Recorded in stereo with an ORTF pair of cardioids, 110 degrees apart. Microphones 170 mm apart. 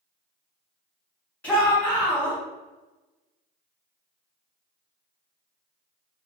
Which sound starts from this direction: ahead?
A shout, at 1.4 s.